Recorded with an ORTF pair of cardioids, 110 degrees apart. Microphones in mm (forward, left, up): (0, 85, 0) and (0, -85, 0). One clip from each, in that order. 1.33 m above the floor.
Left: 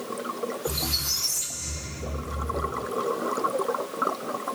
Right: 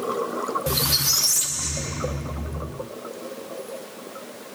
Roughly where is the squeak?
Ahead right.